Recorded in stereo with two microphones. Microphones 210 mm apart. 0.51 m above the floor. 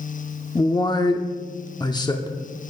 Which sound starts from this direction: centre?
A man speaking, at 0.6 s.